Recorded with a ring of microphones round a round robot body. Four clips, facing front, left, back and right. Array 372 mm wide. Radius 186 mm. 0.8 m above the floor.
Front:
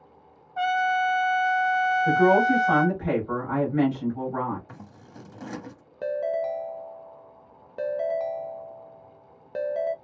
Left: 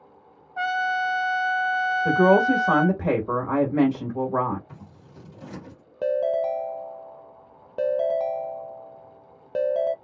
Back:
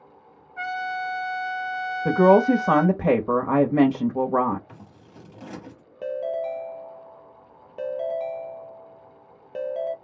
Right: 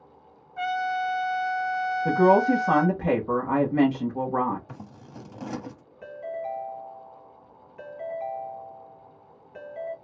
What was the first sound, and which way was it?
A trumpet, 35° left.